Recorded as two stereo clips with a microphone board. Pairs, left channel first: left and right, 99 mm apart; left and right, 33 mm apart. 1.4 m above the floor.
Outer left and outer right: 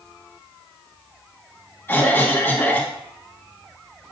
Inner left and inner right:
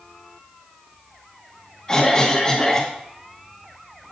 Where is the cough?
20° left (ahead or behind), 1.6 m.